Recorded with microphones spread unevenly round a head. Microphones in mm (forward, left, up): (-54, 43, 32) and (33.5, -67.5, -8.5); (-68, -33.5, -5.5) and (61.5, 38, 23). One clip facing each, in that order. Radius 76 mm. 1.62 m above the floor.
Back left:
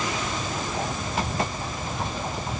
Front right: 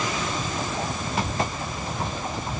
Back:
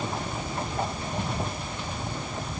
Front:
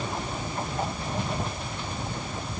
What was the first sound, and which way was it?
Only background noise.